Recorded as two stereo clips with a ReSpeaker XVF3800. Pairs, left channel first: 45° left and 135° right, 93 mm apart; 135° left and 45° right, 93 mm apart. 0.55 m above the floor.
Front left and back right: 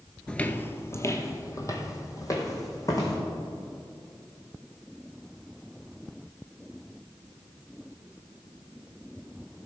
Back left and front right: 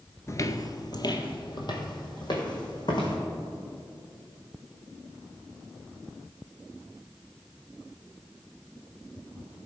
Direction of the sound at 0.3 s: 120° left.